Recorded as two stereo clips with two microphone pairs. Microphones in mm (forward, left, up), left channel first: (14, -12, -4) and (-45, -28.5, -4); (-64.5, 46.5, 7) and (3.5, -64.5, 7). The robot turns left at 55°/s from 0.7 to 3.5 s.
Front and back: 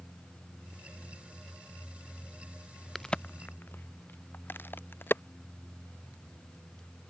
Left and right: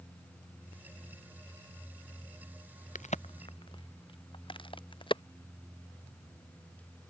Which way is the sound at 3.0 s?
100° left.